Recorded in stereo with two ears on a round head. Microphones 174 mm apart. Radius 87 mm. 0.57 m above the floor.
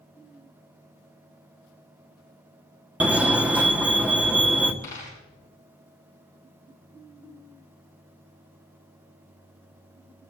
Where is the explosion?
No explosion in this recording.